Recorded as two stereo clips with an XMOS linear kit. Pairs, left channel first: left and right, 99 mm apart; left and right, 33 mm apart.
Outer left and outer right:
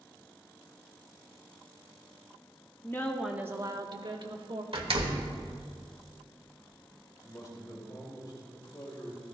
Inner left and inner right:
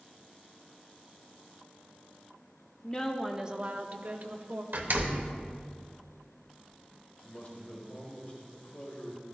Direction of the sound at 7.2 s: 40° left (ahead or behind).